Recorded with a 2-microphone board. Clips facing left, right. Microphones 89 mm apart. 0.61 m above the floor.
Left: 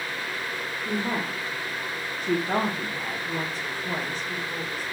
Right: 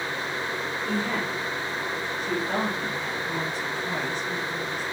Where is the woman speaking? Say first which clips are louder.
Even; 15° left (ahead or behind), 1.0 m; by 4.8 s 45° left (ahead or behind), 2 m.